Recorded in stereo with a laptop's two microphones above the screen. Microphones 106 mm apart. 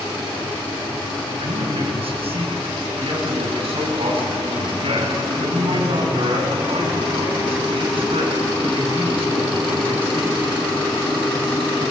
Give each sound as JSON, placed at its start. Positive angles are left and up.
{"t": 1.4, "sound": "a man speaking", "side_deg": -70, "distance_m": 7.0}